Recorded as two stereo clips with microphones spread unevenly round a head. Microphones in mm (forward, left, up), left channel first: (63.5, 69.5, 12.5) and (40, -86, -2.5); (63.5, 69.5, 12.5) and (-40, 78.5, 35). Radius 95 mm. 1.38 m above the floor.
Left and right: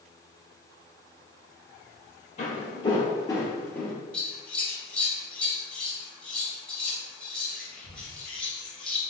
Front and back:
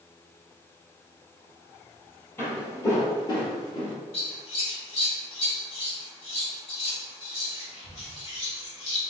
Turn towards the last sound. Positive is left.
turn(degrees=5)